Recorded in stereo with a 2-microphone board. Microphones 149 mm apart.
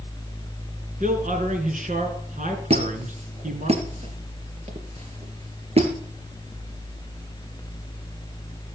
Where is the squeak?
45° right (ahead or behind), 2.5 m.